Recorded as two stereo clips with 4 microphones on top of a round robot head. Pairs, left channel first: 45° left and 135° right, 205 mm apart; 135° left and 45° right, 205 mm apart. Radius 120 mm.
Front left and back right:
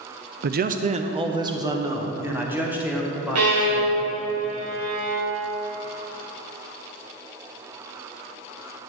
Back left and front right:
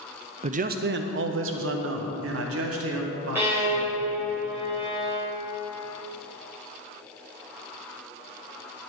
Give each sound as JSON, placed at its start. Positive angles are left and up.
{"t": 0.4, "sound": "a man speaking", "azimuth_deg": -100, "distance_m": 0.6}
{"t": 3.4, "sound": "a violin", "azimuth_deg": -125, "distance_m": 3.5}